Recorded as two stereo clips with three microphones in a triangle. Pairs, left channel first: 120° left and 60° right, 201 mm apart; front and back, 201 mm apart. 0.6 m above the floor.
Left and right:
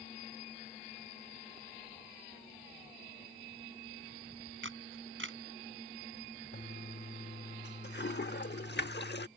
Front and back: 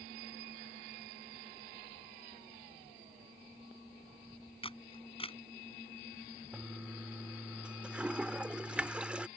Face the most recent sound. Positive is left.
turn(degrees=95)